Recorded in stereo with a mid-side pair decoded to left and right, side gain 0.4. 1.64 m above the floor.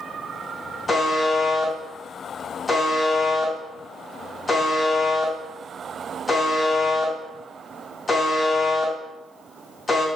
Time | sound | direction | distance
0.9 | a buzzer | 30° left | 3 m